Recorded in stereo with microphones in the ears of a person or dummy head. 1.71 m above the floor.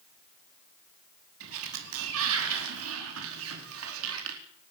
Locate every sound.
1.4 s a sliding door: 80° right, 4.5 m